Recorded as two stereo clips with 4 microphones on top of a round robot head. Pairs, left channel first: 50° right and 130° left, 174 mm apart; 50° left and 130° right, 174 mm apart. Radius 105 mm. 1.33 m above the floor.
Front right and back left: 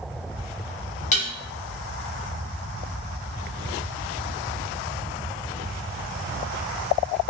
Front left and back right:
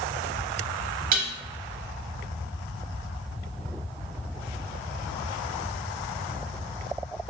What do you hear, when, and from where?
1.1 s dishes clattering: 90° right, 0.7 m